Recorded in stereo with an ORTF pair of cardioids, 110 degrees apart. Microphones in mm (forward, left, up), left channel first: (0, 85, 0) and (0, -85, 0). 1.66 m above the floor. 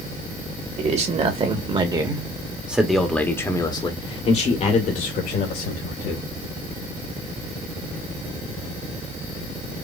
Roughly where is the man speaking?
Ahead right.